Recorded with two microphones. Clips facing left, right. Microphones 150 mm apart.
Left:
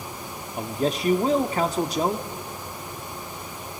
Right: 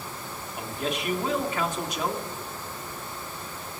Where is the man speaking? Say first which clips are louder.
Left 6 dB; 35° left (ahead or behind), 1.2 m.